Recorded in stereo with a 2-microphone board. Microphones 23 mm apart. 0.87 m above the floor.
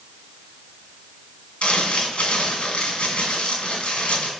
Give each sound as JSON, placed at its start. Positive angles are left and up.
{"t": 1.6, "sound": "crumpling", "side_deg": 65, "distance_m": 2.0}